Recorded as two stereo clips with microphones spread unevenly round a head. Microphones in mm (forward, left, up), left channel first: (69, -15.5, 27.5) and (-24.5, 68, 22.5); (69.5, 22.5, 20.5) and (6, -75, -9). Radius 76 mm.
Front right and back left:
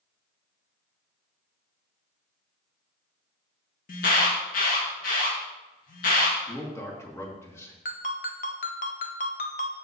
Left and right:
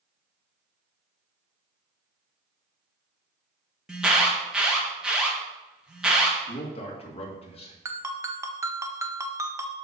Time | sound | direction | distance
3.9 | an alarm | 35° right | 1.7 m
6.5 | a man speaking | 25° left | 2 m
7.8 | a ringtone | 50° right | 1.0 m